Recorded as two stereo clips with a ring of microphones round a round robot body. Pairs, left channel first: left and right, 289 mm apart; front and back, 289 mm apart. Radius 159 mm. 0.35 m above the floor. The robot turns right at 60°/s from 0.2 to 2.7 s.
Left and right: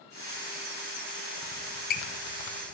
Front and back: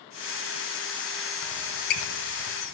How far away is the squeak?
About 0.7 m.